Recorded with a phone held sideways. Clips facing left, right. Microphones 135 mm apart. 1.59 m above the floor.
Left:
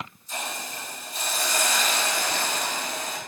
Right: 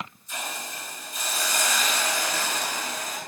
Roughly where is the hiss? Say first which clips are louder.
Left 2 dB; left.